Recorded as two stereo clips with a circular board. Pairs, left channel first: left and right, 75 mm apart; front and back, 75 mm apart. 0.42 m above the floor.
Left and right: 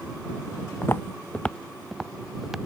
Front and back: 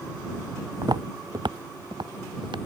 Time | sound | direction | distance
0.8 | footsteps | 145° left | ?